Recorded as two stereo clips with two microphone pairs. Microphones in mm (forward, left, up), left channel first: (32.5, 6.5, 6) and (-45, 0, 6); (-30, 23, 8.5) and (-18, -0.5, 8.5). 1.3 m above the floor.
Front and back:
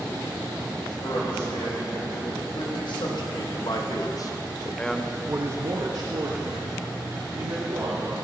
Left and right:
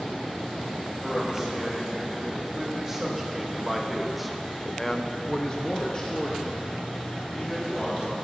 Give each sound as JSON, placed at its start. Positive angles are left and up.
{"t": 1.0, "sound": "a man speaking", "azimuth_deg": 5, "distance_m": 3.0}